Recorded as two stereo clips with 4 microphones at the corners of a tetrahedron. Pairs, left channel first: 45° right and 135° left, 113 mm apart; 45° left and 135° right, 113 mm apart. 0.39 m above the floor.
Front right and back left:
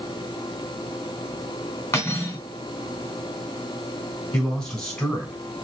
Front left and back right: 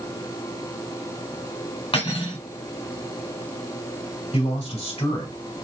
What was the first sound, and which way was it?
Cutlery clinking, 20° left.